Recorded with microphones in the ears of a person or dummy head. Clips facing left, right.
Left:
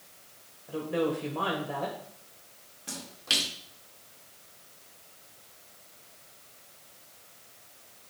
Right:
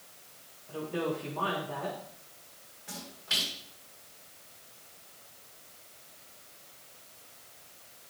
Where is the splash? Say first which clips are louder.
Left 4 dB; 75° left (ahead or behind), 2 m.